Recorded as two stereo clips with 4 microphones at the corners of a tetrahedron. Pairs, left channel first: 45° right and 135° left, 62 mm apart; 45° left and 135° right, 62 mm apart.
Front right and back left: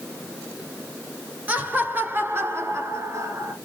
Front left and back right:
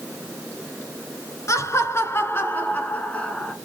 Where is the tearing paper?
I don't hear tearing paper.